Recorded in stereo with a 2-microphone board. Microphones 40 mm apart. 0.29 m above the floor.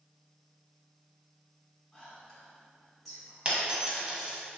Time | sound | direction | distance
1.9 | whispering | 5° left (ahead or behind) | 0.9 m
3.5 | a dropped coin | 25° right (ahead or behind) | 0.8 m